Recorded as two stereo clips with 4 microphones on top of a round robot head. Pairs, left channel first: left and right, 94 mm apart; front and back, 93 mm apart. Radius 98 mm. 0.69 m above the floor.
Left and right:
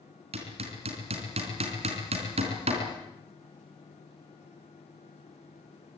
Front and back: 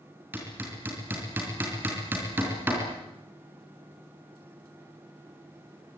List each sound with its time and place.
0.3 s hammering: 105° right, 3.5 m